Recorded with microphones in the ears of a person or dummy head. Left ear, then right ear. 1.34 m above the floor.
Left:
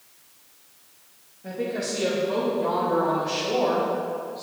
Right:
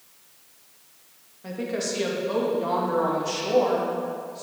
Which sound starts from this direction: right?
A woman speaking, at 1.4 s.